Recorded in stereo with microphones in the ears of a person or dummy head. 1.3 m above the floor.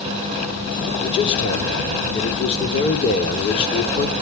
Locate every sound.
1.0 s a man speaking: 35° left (ahead or behind), 3.5 m